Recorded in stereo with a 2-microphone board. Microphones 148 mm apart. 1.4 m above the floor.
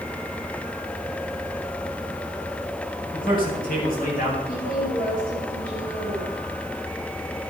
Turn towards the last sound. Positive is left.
turn(degrees=75)  # may be behind; listen again after turning